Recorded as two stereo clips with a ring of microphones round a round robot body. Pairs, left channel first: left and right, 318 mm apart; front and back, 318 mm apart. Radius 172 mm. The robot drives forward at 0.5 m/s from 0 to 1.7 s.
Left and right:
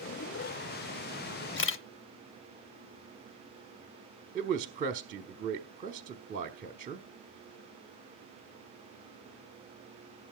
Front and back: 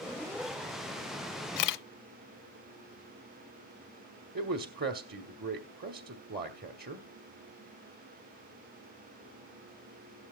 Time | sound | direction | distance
1.6 | a camera shutter | 30° left | 0.7 m
4.3 | a man speaking | 140° right | 1.0 m